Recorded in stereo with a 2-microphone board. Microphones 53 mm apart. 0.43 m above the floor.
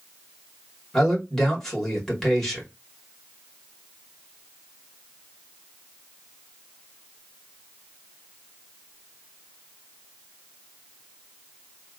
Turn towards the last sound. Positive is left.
turn(degrees=10)  # may be behind; listen again after turning